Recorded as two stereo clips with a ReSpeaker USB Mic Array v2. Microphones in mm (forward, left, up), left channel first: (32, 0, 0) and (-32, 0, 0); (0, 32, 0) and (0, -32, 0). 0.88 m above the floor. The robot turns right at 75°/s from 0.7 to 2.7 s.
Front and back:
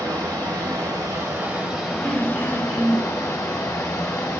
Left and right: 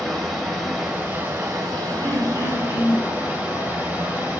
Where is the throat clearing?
135° right, 2.5 m; by 3.1 s 85° right, 2.5 m.